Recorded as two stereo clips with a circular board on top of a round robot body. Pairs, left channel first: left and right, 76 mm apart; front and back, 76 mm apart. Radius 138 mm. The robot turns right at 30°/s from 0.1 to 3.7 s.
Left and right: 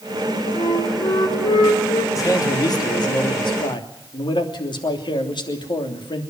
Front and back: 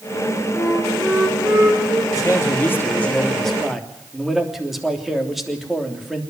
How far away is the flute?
About 5.5 m.